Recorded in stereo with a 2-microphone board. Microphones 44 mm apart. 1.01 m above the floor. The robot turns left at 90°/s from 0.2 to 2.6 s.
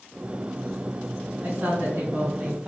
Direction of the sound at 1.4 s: 55° right.